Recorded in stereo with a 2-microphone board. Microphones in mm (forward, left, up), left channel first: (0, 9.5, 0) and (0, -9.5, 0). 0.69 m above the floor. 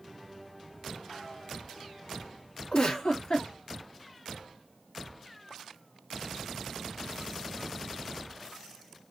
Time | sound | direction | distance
2.7 | a giggle | 50° left (ahead or behind) | 1.7 m